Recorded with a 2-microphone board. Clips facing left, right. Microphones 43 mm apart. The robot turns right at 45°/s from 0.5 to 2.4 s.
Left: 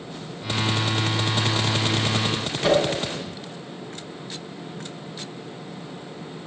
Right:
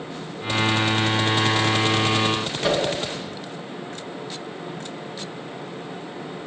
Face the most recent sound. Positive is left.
turn(degrees=5)  # may be behind; listen again after turning